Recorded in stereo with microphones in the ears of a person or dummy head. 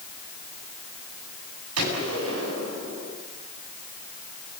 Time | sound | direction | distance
1.8 | a gunshot | 90° right | 9 m